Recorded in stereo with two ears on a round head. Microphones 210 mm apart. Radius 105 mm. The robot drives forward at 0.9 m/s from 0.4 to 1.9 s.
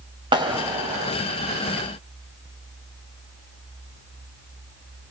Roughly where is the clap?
Right.